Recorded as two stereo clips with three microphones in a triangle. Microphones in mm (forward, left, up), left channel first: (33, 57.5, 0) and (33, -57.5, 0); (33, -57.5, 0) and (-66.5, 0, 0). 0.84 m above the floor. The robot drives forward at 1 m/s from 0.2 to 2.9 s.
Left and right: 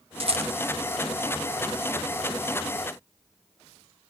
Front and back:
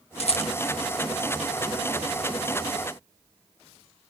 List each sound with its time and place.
0.2 s a rattle: 55° right, 1.2 m; by 0.5 s 70° right, 1.1 m